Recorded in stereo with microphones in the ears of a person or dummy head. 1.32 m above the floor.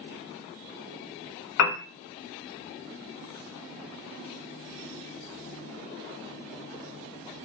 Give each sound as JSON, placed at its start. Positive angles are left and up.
{"t": 1.6, "sound": "a piano", "side_deg": 75, "distance_m": 0.6}